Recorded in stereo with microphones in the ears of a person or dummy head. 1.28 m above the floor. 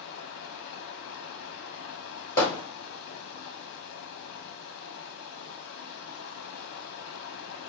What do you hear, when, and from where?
0.0 s running water: 55° left (ahead or behind), 0.7 m
2.4 s hammering: 15° left (ahead or behind), 3 m